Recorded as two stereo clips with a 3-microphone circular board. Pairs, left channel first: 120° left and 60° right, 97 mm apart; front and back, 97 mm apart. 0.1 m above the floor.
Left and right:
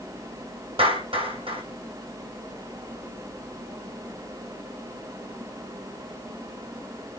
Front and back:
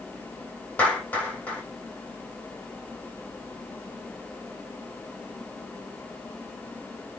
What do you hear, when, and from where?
0.8 s a clap: 75° right, 3.5 m